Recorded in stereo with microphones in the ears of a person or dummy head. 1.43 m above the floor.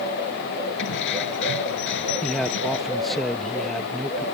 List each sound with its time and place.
0.8 s keys jangling: 65° left (ahead or behind)
2.2 s a man speaking: 5° left (ahead or behind)